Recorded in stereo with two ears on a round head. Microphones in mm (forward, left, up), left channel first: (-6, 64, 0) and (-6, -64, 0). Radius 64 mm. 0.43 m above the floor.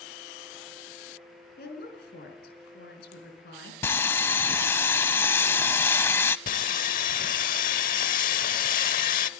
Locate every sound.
1.6 s a woman speaking: 80° left, 4.5 m
3.8 s sawing: 15° left (ahead or behind), 0.6 m
6.5 s sawing: 65° left (ahead or behind), 1.0 m